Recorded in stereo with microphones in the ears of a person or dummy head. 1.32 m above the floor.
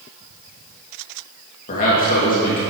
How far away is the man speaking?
About 1.7 m.